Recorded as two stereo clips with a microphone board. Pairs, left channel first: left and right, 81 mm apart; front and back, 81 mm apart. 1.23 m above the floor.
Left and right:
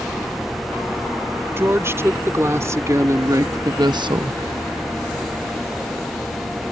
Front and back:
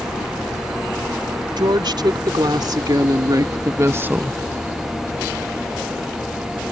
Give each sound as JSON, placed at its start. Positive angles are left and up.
{"t": 1.6, "sound": "a woman speaking", "azimuth_deg": -150}